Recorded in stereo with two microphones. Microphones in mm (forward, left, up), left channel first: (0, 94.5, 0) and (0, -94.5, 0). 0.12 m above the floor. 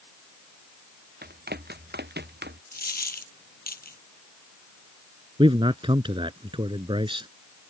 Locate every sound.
1.2 s running footsteps: 55° right (ahead or behind); by 2.6 s 65° right (ahead or behind)
2.7 s a dropped coin: 55° left (ahead or behind)
5.4 s a man speaking: 25° right (ahead or behind)